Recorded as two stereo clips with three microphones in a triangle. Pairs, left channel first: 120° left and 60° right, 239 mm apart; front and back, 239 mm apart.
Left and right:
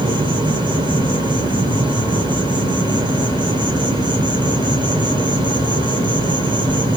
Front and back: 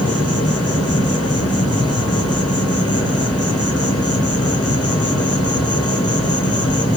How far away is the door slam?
I don't hear a door slam.